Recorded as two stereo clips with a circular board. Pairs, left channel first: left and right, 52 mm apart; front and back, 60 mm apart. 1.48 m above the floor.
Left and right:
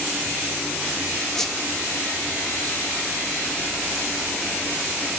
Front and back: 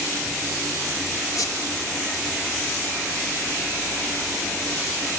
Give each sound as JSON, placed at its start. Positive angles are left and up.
{"t": 1.3, "sound": "a squeak", "azimuth_deg": 10, "distance_m": 1.7}